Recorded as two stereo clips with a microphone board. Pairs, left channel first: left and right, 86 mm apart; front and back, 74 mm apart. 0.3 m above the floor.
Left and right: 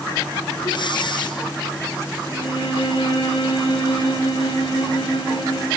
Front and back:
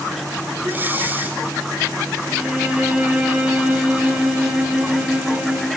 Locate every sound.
0.6 s breathing: 115° left, 2.5 m
2.3 s a violin: 105° left, 4.5 m